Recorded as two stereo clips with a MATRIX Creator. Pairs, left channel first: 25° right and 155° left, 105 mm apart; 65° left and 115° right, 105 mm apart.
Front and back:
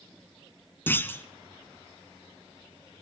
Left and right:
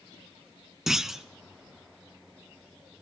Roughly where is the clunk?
Ahead right.